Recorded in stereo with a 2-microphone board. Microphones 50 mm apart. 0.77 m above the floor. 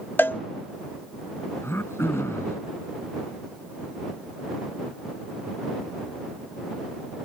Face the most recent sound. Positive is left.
turn(degrees=55)  # may be behind; listen again after turning